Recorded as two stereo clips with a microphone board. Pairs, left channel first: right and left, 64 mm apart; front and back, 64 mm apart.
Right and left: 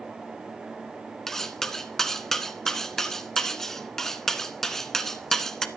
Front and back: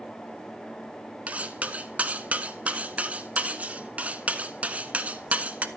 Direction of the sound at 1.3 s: 165° right.